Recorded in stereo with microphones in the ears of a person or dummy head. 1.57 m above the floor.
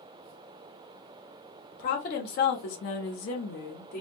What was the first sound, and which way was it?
A woman speaking, 40° left (ahead or behind).